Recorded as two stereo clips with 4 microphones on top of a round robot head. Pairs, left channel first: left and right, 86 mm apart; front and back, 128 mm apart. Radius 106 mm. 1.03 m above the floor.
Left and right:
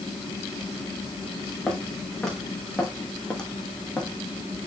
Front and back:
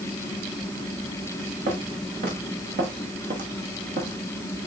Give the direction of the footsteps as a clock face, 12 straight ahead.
6 o'clock.